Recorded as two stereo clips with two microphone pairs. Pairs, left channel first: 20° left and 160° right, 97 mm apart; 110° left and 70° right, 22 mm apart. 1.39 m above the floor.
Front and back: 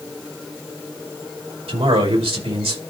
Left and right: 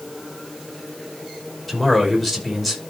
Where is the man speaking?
155° right, 4.5 m.